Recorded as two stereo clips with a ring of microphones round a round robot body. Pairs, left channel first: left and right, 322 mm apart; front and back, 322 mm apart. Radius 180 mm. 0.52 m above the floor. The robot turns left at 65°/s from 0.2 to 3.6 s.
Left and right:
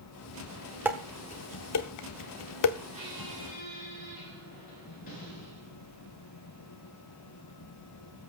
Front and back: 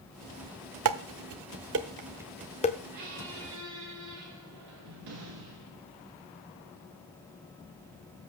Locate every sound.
0.8 s dishes clattering: 175° right, 0.8 m; by 2.8 s 65° left, 0.8 m
2.9 s a squeak: 160° right, 5.5 m; by 5.9 s 160° left, 5.5 m